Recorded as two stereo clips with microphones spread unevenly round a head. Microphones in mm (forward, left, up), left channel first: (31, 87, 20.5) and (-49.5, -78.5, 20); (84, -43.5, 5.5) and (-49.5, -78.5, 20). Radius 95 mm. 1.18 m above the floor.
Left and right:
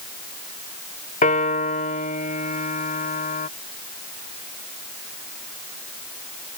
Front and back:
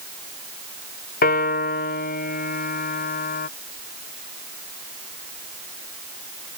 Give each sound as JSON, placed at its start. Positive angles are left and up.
{"t": 1.2, "sound": "a piano", "azimuth_deg": 15}